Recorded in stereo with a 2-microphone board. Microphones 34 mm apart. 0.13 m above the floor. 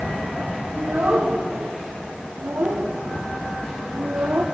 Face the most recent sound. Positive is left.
turn(degrees=-75)  # may be behind; listen again after turning